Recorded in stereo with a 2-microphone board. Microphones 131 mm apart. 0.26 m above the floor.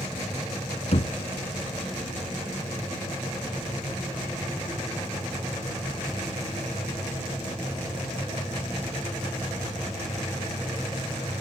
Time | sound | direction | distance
0.9 | knocking | 55° left (ahead or behind) | ?